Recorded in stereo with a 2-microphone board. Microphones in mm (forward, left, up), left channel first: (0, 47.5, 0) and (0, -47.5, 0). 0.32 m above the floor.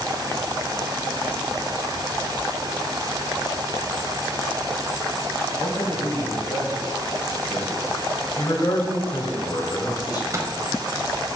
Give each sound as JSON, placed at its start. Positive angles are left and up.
{"t": 5.6, "sound": "a man speaking", "side_deg": 50, "distance_m": 2.0}
{"t": 8.4, "sound": "a man speaking", "side_deg": 45, "distance_m": 1.6}
{"t": 10.3, "sound": "a microwave", "side_deg": -35, "distance_m": 1.2}